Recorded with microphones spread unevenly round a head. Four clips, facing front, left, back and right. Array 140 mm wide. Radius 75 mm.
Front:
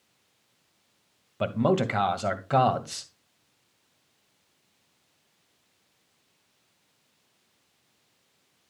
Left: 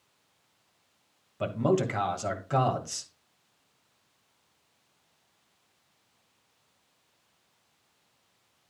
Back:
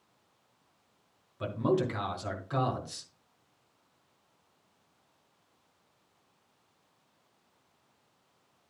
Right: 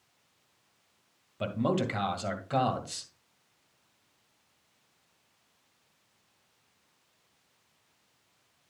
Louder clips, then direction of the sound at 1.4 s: Left 3 dB, front 5 dB; 5° left.